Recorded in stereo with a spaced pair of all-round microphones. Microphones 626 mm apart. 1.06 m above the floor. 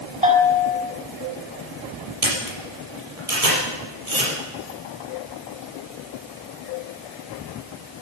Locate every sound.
0.2 s a bell: 10° right (ahead or behind), 2 m
2.2 s a camera shutter: 70° right (ahead or behind), 4.5 m